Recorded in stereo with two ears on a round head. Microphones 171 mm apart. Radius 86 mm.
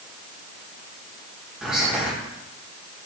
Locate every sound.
1.6 s whispering: 5° right (ahead or behind), 1.3 m